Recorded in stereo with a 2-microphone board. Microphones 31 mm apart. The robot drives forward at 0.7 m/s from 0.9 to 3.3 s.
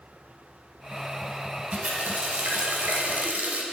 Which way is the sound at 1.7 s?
55° right (ahead or behind).